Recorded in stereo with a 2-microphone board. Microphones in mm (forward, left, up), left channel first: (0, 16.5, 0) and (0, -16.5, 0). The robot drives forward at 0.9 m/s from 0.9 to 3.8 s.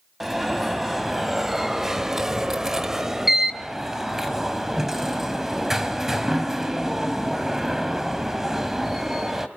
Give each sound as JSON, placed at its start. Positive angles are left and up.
{"t": 0.2, "sound": "an alarm", "side_deg": -10, "distance_m": 1.7}